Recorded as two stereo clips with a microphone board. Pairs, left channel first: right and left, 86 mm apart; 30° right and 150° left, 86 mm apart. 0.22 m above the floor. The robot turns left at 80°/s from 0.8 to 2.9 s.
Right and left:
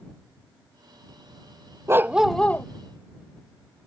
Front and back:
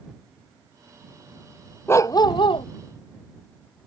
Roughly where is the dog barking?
Ahead left.